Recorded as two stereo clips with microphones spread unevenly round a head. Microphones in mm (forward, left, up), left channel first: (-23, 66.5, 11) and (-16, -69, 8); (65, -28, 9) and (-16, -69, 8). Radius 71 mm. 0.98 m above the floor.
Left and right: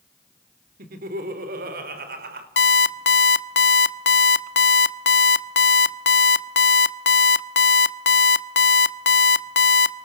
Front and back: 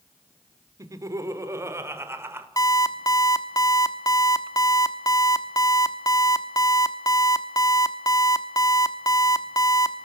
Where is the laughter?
105° right, 3.5 m; by 2.5 s 90° right, 4 m.